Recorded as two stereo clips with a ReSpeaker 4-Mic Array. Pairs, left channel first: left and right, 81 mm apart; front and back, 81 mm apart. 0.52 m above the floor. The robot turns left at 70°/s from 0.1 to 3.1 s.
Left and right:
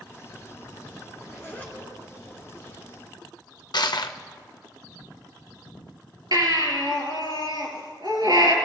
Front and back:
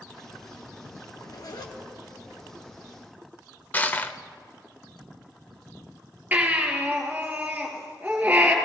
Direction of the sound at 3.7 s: 70° left.